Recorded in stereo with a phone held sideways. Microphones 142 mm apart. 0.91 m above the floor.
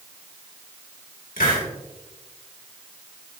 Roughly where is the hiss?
Left.